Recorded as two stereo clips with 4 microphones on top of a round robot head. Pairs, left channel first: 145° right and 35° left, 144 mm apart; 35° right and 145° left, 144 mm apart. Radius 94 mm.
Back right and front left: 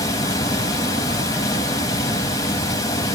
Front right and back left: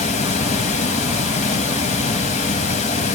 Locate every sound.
0.0 s running water: 75° right, 0.9 m